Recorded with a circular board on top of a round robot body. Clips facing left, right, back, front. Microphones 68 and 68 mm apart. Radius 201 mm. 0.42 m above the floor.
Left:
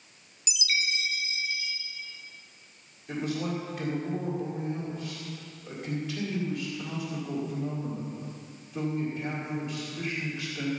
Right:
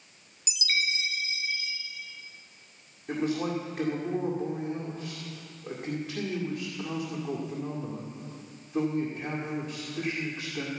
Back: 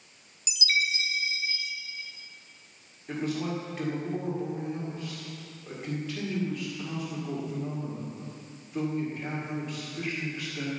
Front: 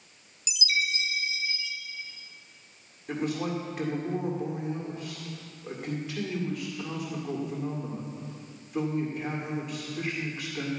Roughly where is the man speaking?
Right.